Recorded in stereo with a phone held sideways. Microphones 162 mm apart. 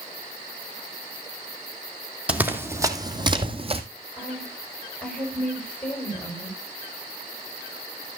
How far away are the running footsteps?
About 1.3 m.